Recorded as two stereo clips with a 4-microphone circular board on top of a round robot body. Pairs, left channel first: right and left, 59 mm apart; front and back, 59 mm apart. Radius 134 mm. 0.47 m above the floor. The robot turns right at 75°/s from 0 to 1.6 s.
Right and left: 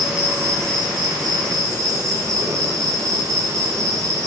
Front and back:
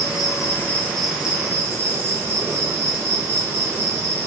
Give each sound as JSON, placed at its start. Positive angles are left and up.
{"t": 0.0, "sound": "an insect", "azimuth_deg": 10, "distance_m": 0.9}